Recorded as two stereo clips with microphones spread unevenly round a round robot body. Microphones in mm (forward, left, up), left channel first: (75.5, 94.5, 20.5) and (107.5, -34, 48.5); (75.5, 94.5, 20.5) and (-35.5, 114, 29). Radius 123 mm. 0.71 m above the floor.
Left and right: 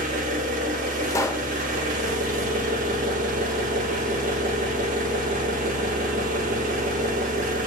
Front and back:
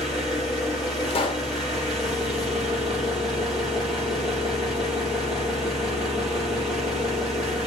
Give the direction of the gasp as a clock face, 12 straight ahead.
No gasp in this recording.